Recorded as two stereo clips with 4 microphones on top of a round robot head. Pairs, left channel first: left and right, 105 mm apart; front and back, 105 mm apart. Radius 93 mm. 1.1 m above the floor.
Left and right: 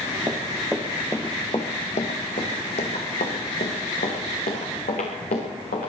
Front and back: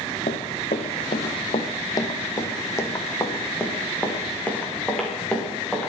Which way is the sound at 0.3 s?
20° right.